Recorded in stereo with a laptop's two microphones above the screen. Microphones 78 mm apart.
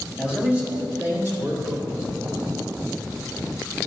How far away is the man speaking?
About 2 m.